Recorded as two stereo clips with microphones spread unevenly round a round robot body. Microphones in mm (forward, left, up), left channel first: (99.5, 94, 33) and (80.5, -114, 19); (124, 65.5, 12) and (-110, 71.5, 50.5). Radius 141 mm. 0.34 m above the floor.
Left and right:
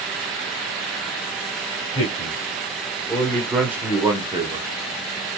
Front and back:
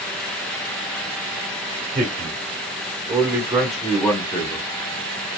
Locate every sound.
1.9 s a man speaking: 130° left, 1.2 m; by 4.7 s 55° right, 1.2 m